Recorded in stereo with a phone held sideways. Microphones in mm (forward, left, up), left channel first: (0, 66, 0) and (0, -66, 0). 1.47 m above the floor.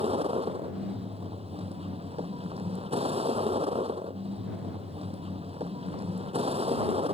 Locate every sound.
0.0 s a vehicle: 50° right (ahead or behind)